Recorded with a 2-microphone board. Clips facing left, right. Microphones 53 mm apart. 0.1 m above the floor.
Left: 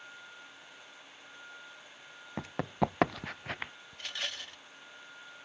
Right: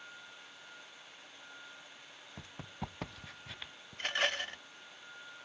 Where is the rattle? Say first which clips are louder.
Right 7 dB; 45° right (ahead or behind).